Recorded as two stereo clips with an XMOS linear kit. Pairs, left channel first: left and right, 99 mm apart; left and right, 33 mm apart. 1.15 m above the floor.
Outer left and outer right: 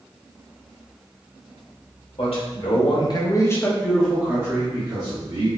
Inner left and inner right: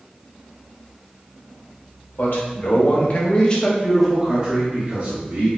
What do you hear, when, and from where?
2.2 s a man speaking: 70° left (ahead or behind), 1.5 m; by 5.5 s 50° right (ahead or behind), 1.6 m